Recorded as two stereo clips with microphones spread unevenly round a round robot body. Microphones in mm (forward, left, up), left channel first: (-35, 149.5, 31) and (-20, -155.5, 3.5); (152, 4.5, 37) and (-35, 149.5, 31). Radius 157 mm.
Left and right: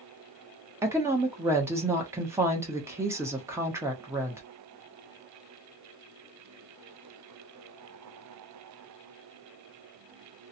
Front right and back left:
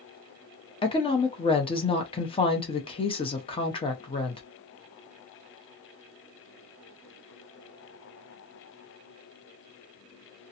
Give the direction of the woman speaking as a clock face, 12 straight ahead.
1 o'clock.